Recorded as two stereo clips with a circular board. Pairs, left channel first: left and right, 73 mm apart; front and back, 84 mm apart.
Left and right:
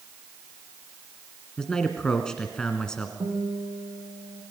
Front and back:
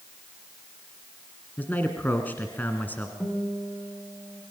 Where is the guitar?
70° right, 7 m.